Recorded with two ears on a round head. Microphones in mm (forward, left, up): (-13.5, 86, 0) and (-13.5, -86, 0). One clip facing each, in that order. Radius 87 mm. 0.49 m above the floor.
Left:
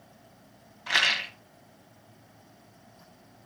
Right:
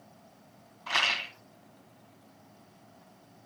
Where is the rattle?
15° left (ahead or behind), 1.2 m.